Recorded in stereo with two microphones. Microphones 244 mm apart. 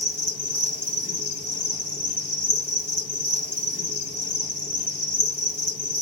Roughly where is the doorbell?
I don't hear a doorbell.